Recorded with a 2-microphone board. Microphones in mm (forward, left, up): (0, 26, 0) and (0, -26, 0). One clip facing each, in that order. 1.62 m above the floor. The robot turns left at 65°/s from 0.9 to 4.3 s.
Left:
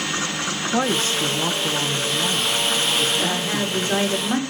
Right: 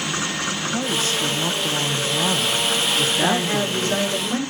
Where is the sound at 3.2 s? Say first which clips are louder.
Right 3 dB; 155° right, 6 m; by 4.4 s 135° left, 6 m.